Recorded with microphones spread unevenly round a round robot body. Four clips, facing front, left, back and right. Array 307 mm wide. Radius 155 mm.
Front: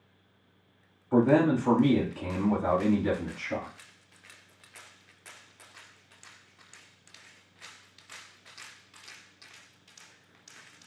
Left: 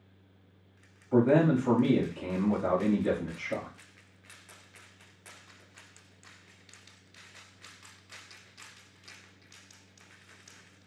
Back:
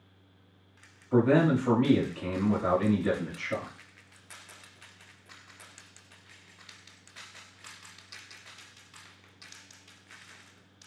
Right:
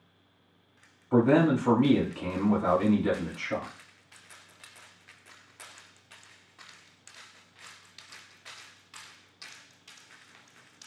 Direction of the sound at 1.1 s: 65° right.